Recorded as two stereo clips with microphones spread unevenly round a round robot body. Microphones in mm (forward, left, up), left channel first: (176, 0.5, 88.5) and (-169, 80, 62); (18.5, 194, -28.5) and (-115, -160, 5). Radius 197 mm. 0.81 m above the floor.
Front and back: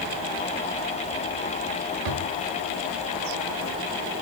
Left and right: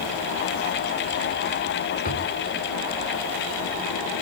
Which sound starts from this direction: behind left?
A drawer, at 2.0 s.